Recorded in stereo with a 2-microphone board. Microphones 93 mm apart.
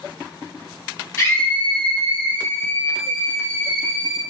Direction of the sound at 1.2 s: 30° left (ahead or behind).